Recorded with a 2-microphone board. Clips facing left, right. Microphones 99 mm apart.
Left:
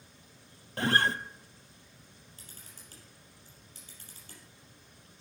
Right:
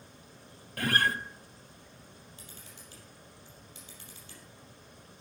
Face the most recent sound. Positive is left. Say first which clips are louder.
# right 4 dB
turn(degrees=45)  # may be behind; listen again after turning